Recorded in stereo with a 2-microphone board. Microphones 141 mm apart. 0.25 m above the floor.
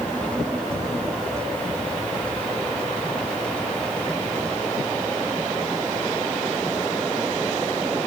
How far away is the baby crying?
No baby crying in this recording.